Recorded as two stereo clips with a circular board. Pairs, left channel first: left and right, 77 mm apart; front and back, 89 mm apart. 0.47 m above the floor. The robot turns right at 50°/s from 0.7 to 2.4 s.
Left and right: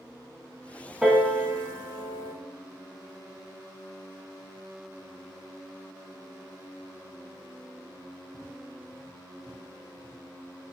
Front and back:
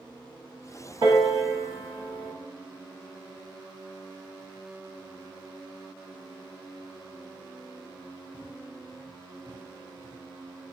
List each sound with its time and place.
1.0 s a piano: 175° right, 0.6 m; by 2.3 s 105° right, 0.6 m